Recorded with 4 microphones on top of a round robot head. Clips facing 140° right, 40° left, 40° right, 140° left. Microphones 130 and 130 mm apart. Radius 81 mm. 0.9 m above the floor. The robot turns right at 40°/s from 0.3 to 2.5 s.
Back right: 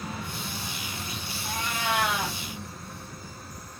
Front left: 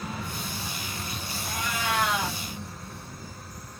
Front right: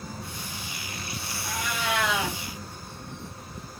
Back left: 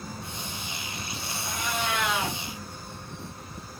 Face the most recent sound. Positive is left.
turn(degrees=-40)